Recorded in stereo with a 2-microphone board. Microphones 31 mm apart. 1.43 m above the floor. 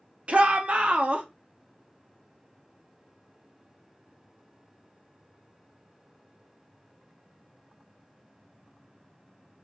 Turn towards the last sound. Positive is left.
turn(degrees=-45)  # may be behind; listen again after turning